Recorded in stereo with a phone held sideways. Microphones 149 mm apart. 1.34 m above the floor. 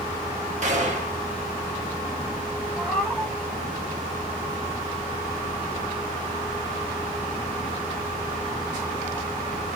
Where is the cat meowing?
Centre (ahead or behind), 1.7 m.